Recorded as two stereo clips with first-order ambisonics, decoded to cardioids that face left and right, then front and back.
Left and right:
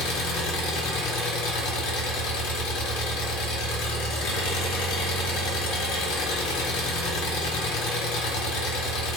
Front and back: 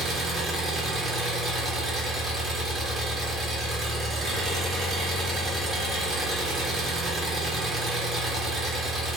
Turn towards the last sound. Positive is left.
turn(degrees=105)